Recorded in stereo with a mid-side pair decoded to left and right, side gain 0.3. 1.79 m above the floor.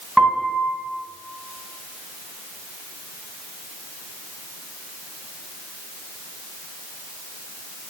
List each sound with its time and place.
0.2 s a piano: 10° right, 2.5 m